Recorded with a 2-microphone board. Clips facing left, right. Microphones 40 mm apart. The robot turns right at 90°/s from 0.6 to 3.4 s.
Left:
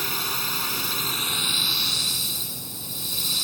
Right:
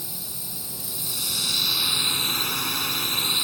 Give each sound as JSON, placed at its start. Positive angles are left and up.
{"t": 0.0, "sound": "a drone", "azimuth_deg": 80}